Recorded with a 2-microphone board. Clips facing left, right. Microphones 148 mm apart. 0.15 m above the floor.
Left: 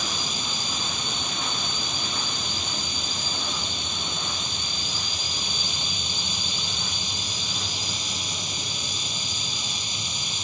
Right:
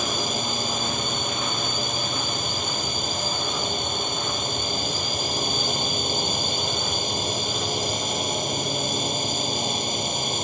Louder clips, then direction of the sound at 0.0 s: Right 6 dB; 55° right (ahead or behind).